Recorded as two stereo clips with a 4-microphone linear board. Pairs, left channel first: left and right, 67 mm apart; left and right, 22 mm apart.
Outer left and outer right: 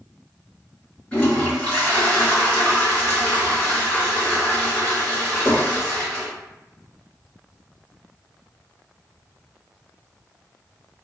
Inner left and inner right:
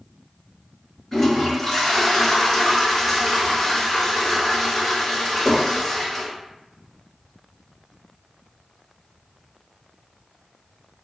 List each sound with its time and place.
1.1 s a toilet flushing: 20° left (ahead or behind), 1.8 m